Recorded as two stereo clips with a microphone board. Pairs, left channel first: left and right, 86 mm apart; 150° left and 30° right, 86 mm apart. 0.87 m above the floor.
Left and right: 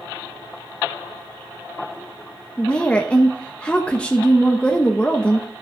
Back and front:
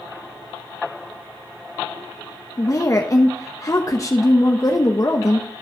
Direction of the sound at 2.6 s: 160° left.